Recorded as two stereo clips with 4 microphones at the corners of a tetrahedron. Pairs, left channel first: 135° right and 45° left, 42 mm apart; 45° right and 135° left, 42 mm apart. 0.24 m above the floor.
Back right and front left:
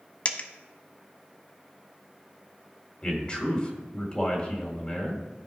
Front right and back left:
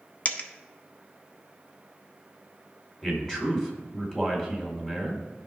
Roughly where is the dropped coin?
Right.